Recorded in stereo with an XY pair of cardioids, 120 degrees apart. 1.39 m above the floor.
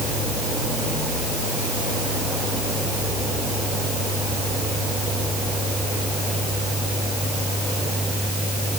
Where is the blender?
No blender in this recording.